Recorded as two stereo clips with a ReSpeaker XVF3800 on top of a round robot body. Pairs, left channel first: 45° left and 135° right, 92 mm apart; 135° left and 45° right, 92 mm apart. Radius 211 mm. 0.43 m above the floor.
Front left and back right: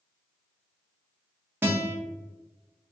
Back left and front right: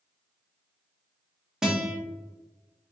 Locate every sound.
1.6 s a guitar: 115° right, 1.2 m